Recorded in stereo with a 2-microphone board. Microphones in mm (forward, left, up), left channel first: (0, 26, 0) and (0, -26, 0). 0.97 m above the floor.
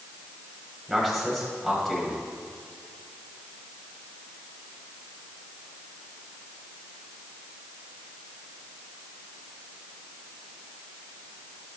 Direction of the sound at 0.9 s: Centre (ahead or behind).